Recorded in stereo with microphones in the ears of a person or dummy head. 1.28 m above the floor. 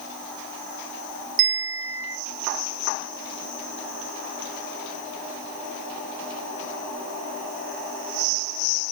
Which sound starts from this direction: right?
A bell, at 1.4 s.